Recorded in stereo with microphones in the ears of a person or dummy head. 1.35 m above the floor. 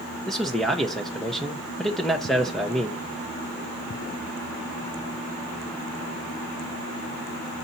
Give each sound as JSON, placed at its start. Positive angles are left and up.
{"t": 0.3, "sound": "a man speaking", "side_deg": 0, "distance_m": 0.9}